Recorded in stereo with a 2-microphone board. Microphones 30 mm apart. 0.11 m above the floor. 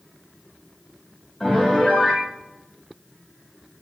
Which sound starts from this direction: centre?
A piano, at 1.4 s.